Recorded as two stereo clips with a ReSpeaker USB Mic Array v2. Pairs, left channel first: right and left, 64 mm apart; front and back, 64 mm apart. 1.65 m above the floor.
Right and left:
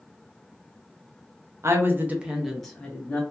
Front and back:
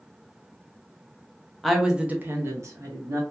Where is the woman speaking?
90° left, 0.6 m; by 3.2 s 155° right, 0.9 m.